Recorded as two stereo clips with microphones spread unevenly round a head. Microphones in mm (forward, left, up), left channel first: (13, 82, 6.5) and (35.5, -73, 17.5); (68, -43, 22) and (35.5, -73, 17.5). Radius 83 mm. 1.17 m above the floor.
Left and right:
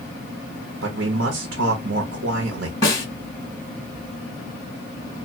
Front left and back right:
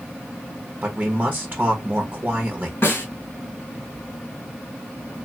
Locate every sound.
0.8 s a man speaking: 80° right, 0.8 m
2.8 s a snare drum: 30° left, 1.8 m